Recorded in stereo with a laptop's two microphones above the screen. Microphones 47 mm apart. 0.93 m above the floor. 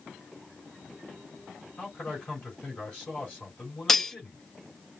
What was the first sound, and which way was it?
A man speaking, 25° left (ahead or behind).